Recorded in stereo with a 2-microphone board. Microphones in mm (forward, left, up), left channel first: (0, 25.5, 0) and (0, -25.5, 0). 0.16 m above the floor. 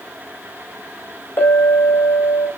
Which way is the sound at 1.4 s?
45° left (ahead or behind).